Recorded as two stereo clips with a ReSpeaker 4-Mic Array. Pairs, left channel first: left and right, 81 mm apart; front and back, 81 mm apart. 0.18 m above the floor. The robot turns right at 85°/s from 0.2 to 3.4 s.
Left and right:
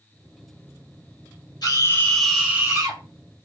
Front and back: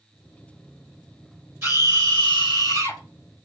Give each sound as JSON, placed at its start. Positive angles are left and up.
{"t": 1.6, "sound": "a scream", "azimuth_deg": 125, "distance_m": 4.0}